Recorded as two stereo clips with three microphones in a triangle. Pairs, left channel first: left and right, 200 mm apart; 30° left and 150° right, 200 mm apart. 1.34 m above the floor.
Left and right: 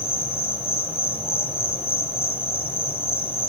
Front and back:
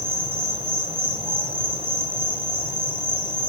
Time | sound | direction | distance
0.0 | an insect | 150° left | 0.7 m